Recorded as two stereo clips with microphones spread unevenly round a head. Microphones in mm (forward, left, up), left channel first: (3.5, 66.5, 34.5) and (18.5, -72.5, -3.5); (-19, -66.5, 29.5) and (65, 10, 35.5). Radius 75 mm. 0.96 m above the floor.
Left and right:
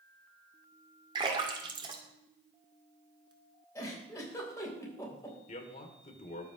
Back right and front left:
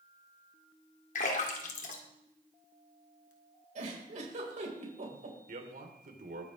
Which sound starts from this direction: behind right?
A splash, at 1.1 s.